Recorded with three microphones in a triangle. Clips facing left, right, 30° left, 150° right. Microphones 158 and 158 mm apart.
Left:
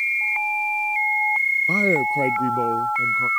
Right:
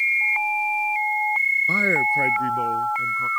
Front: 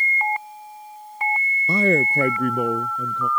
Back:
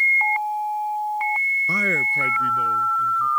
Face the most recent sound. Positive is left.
turn(degrees=30)